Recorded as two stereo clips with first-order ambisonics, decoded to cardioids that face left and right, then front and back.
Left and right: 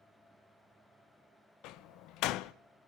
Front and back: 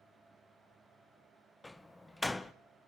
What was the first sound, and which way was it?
A door slam, 80° left.